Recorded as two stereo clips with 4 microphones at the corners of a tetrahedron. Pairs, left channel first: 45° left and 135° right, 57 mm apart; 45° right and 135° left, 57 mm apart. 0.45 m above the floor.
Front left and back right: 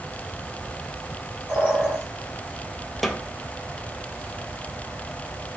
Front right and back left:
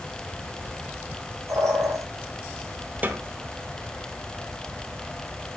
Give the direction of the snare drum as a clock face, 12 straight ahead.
8 o'clock.